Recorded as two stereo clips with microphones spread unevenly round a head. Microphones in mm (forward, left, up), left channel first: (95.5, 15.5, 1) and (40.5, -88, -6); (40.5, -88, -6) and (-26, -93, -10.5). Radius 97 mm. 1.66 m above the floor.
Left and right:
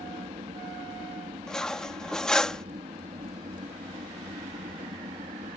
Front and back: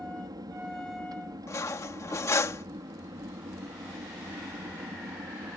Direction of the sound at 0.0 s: 170° right.